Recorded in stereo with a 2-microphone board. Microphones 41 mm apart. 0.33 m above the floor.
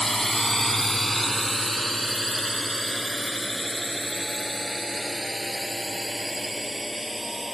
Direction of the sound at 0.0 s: 10° left (ahead or behind).